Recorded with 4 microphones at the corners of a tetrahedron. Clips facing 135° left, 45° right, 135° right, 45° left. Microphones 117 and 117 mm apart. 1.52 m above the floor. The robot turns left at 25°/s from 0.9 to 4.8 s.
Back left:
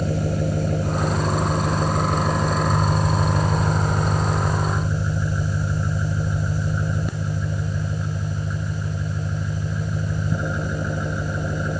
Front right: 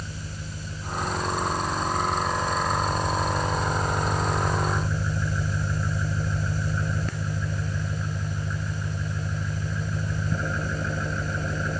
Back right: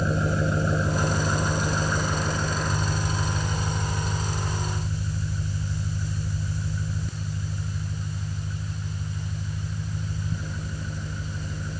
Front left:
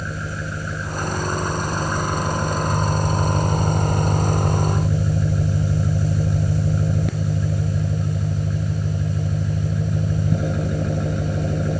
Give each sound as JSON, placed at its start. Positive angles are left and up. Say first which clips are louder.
{"t": 0.0, "sound": "an engine running", "louder": "back left 15 dB, back right 5 dB", "azimuth_deg": 160}